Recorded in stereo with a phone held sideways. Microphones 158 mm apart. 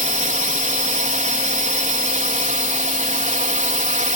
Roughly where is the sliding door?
I don't hear a sliding door.